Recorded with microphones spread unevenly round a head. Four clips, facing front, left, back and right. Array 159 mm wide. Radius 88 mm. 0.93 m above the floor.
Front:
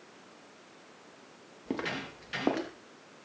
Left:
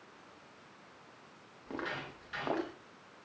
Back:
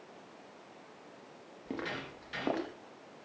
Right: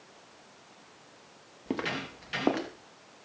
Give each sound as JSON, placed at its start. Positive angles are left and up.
{"t": 1.7, "sound": "footsteps", "azimuth_deg": -35, "distance_m": 4.5}